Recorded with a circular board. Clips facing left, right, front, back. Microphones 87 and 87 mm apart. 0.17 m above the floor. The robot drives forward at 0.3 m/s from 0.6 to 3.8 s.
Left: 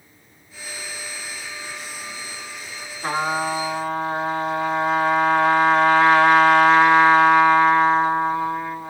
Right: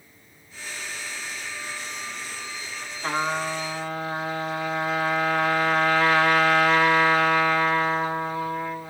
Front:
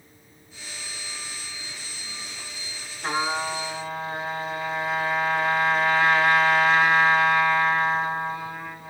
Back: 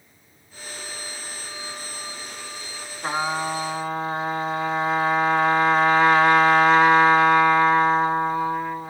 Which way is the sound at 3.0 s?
140° left.